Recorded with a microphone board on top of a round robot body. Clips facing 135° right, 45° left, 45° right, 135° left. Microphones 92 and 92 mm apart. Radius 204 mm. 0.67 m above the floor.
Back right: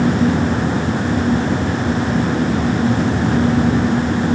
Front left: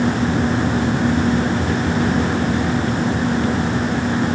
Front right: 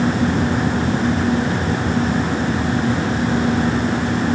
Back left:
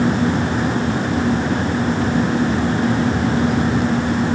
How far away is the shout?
No shout in this recording.